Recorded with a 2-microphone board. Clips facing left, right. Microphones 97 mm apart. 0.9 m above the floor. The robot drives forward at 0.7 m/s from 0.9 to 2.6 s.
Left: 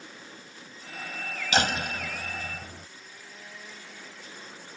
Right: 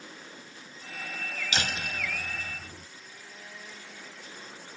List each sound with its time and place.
1.5 s a door slam: 45° left (ahead or behind); by 2.9 s 55° left (ahead or behind)